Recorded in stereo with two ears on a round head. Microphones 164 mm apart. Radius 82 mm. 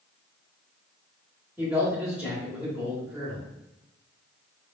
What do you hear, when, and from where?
1.6 s a man speaking: 10° right (ahead or behind), 1.1 m